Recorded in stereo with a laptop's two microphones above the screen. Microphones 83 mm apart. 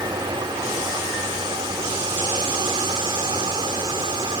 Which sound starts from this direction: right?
A fan, at 0.0 s.